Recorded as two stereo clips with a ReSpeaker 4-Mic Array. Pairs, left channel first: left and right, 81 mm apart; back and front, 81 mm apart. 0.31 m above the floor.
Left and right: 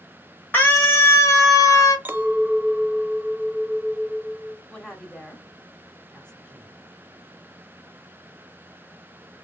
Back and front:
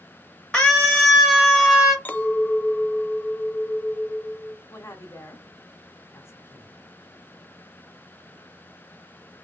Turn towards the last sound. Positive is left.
turn(degrees=165)